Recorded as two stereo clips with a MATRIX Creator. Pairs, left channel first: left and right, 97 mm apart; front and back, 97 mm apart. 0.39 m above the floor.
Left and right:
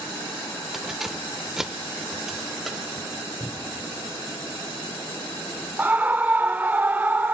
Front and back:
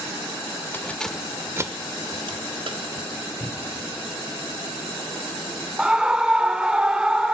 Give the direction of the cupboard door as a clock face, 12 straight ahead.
11 o'clock.